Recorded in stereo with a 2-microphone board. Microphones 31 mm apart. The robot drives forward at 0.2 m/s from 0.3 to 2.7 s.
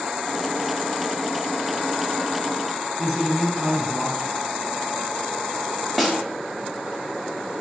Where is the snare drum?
Centre (ahead or behind), 0.6 m.